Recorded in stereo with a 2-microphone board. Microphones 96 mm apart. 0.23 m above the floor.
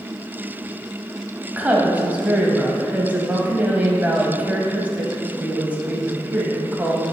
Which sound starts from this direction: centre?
A woman speaking, at 1.5 s.